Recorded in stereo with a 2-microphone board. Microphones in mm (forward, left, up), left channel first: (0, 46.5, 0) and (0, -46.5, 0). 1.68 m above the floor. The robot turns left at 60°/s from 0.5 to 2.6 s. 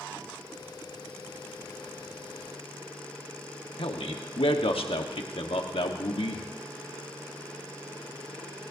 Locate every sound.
3.8 s a man speaking: 80° left, 1.3 m